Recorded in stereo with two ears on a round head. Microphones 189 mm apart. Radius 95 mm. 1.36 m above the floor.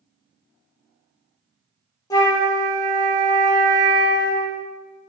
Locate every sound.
2.1 s a flute: 15° left (ahead or behind), 0.5 m